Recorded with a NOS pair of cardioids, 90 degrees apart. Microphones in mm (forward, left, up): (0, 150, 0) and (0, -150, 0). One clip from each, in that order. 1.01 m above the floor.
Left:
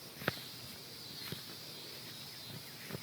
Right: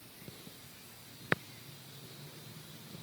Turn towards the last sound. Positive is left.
No sound to turn to.